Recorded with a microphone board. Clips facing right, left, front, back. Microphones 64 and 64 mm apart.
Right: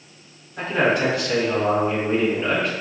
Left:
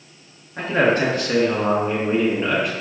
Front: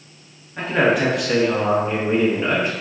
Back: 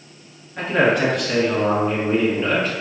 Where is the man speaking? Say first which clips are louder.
Left 2 dB, even; 90° left, 2 m; by 2.7 s 10° left, 1.5 m.